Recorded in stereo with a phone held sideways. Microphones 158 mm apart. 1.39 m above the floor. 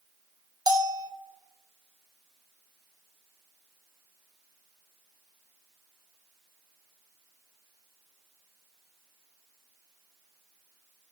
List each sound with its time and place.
0.7 s a bell: 25° right (ahead or behind), 0.8 m